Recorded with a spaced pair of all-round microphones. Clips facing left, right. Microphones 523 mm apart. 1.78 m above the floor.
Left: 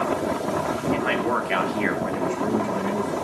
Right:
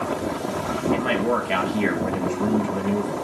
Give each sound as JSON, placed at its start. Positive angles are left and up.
{"t": 0.9, "sound": "a man speaking", "side_deg": -55, "distance_m": 2.5}